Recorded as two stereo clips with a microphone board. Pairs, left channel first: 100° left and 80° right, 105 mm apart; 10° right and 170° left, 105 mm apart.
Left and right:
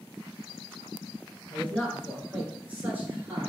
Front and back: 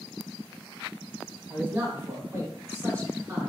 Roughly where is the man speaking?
Behind left.